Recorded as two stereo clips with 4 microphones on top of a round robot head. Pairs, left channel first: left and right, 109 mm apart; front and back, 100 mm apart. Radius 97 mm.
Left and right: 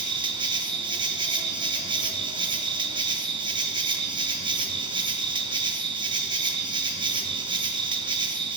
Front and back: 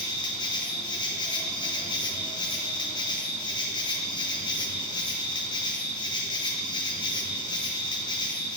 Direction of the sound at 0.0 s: 45° right.